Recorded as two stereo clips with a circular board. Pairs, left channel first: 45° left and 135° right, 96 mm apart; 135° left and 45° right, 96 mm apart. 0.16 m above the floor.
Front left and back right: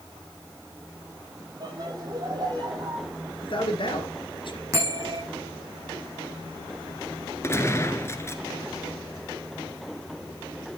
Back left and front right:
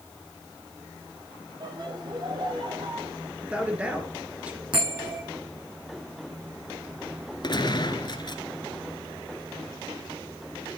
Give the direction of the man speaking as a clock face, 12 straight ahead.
11 o'clock.